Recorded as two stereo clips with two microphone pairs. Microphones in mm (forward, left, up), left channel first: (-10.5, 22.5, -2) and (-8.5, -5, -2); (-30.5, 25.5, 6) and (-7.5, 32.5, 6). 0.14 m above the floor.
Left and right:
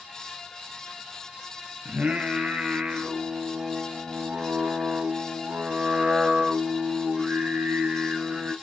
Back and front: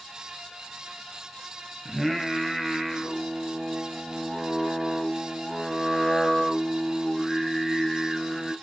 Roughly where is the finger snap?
No finger snap in this recording.